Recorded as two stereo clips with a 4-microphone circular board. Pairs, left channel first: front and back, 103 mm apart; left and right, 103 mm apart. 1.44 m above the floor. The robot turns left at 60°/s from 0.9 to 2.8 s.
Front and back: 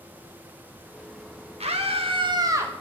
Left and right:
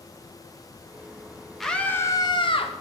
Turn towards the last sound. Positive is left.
turn(degrees=105)